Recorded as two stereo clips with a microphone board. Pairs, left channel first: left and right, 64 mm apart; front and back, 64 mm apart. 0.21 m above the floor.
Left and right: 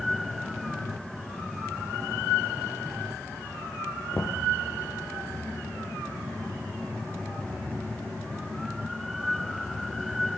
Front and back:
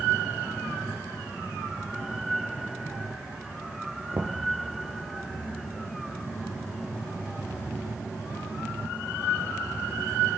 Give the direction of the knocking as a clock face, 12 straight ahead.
8 o'clock.